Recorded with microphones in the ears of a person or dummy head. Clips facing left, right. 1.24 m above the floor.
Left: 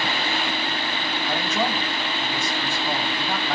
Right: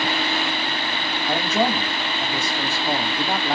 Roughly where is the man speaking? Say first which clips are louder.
Right 4 dB; right.